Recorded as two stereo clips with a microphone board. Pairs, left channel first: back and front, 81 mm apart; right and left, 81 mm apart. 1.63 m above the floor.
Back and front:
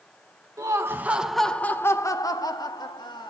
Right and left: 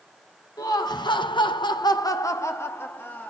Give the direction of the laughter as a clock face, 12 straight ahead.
2 o'clock.